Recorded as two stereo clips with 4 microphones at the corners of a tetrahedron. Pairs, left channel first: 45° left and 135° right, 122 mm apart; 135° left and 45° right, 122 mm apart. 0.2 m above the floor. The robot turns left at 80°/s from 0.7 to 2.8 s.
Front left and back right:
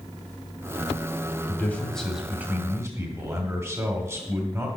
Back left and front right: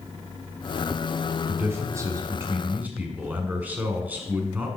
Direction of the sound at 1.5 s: 5° left.